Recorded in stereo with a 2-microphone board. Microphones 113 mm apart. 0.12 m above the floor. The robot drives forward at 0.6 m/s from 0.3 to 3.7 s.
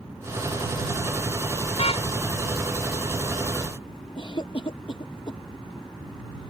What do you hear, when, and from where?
1.8 s a car horn: 65° left (ahead or behind); by 2.1 s 60° left (ahead or behind)
4.2 s a cough: 50° left (ahead or behind)